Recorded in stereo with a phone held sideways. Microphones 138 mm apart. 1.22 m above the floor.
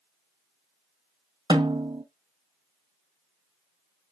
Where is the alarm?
I don't hear an alarm.